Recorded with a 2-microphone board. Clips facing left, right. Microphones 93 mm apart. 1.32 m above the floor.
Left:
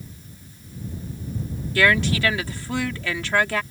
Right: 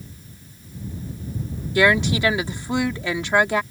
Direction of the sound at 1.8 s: 20° right (ahead or behind).